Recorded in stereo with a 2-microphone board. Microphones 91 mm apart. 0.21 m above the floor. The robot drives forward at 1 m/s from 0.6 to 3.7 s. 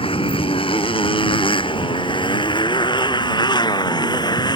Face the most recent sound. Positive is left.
turn(degrees=50)  # may be behind; listen again after turning